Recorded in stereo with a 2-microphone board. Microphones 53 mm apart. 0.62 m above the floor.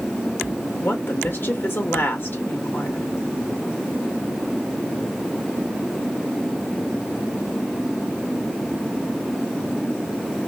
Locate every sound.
0.8 s a woman speaking: 45° left (ahead or behind), 1.3 m